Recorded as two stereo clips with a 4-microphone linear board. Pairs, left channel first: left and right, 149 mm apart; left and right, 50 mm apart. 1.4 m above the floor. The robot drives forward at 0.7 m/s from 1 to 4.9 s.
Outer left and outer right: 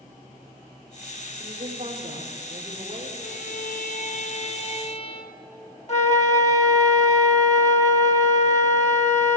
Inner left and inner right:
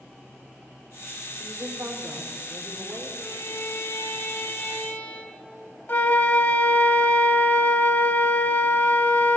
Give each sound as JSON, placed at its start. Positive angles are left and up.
{"t": 1.4, "sound": "a woman speaking", "side_deg": -50, "distance_m": 4.5}
{"t": 3.2, "sound": "a violin", "side_deg": 75, "distance_m": 0.9}
{"t": 5.9, "sound": "a flute", "side_deg": 50, "distance_m": 1.3}